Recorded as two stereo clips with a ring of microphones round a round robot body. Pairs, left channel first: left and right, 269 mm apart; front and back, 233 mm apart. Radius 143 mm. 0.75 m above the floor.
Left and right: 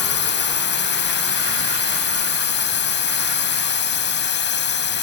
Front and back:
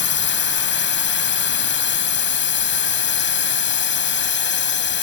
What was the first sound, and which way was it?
A drone, 40° left.